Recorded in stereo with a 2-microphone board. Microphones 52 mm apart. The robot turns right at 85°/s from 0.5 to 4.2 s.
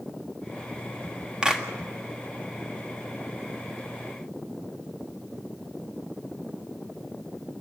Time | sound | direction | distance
1.4 | a clap | 20° right (ahead or behind) | 1.7 m